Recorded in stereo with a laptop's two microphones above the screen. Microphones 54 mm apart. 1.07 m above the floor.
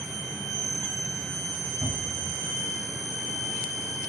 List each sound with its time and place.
1.8 s a cupboard door: 65° right (ahead or behind), 3 m